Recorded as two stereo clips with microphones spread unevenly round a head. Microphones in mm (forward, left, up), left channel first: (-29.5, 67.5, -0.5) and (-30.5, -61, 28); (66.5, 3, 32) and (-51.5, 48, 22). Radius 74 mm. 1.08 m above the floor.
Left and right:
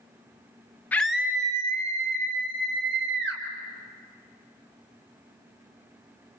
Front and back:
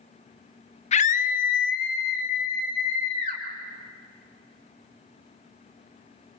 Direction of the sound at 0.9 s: 15° left.